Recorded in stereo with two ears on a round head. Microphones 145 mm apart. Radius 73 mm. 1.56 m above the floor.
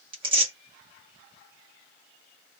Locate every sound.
0.1 s tearing paper: 30° right (ahead or behind), 1.2 m